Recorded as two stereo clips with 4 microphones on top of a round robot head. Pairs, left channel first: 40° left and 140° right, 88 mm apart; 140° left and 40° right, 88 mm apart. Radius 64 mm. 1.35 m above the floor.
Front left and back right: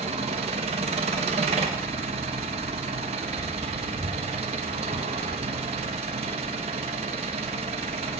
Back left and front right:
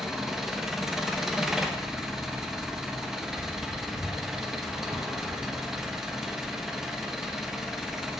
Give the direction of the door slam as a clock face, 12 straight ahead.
I don't hear a door slam.